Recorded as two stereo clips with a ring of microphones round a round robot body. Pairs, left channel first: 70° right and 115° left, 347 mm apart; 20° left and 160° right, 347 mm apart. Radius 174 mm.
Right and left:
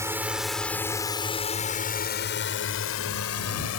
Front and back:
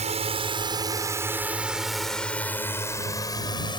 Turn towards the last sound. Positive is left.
turn(degrees=-50)